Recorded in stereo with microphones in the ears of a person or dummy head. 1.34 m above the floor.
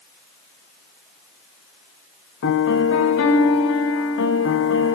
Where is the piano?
75° left (ahead or behind), 1.4 m.